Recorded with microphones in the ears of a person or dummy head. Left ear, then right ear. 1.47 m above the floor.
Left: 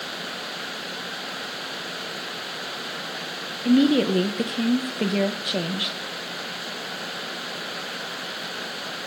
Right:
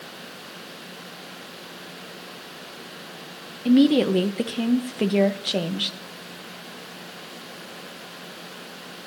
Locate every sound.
3.6 s a woman speaking: 5° right (ahead or behind), 0.7 m